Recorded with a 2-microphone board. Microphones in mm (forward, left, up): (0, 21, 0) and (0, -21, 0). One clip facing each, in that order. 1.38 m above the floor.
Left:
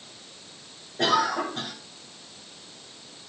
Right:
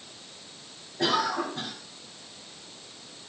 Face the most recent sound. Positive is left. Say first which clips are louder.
# left 3 dB
turn(degrees=60)  # may be behind; listen again after turning